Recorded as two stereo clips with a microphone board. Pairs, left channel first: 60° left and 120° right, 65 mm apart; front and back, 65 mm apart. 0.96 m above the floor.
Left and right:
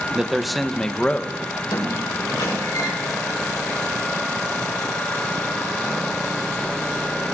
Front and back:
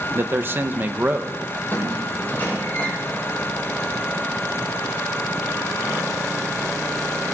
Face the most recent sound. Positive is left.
turn(degrees=60)